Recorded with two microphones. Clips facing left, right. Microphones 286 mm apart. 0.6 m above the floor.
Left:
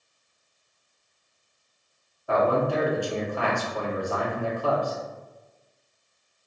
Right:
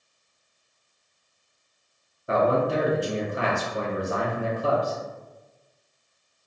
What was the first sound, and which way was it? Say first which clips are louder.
A man speaking: right 1 dB; 20° right (ahead or behind).